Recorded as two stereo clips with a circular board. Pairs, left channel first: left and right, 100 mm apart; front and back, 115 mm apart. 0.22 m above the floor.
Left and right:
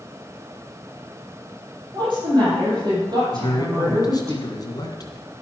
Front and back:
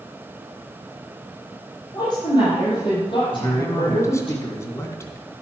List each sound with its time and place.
1.9 s a woman speaking: 50° right, 6.5 m; by 4.3 s 35° right, 5.5 m
3.3 s a man speaking: 55° left, 2 m